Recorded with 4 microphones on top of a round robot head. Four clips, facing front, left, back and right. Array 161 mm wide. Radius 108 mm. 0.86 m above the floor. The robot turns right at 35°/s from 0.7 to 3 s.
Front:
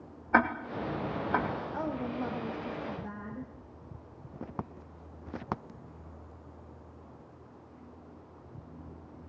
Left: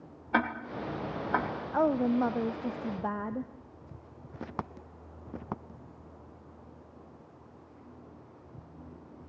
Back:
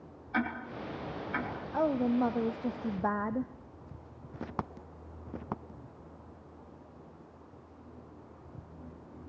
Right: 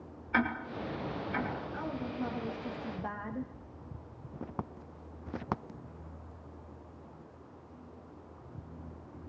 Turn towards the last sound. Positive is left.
turn(degrees=155)